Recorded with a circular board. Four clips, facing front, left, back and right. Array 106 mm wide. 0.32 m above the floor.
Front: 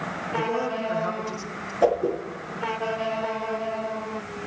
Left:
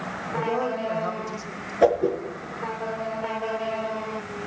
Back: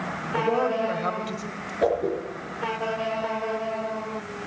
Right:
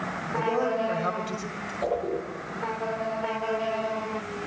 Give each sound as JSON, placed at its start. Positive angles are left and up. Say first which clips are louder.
{"t": 0.4, "sound": "a man speaking", "louder": "right 1 dB, back 4 dB", "azimuth_deg": 150, "distance_m": 1.4}
{"t": 1.8, "sound": "a whoosh", "louder": "left 8 dB, front 2 dB", "azimuth_deg": 105, "distance_m": 4.5}